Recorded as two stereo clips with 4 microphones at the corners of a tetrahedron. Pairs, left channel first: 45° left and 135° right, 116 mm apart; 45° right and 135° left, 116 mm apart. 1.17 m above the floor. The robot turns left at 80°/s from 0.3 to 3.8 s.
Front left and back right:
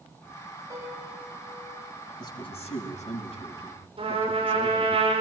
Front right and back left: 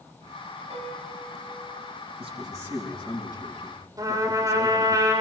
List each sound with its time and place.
0.7 s a piano: 165° left, 4.5 m; by 1.9 s 65° left, 4.5 m
2.2 s a man speaking: 100° left, 6.5 m; by 5.0 s 30° right, 6.5 m
4.0 s a trumpet: 165° right, 5 m